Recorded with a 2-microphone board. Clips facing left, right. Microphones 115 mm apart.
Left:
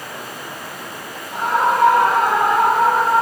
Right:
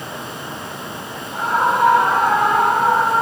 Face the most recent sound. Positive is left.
turn(degrees=85)